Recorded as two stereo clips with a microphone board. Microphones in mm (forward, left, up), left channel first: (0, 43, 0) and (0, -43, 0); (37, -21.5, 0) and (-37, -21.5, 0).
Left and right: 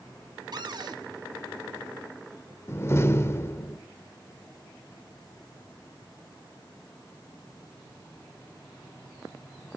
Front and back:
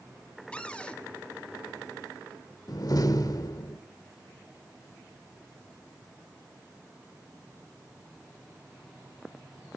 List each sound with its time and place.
0.5 s a cupboard door: 75° right, 1.5 m
2.7 s a door slam: 30° left, 1.4 m